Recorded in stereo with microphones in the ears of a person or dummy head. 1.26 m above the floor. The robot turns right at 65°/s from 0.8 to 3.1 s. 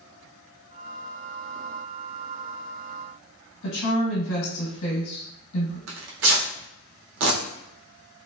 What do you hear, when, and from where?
3.6 s a woman speaking: 70° left (ahead or behind), 1.0 m
5.9 s tearing paper: 70° right (ahead or behind), 0.6 m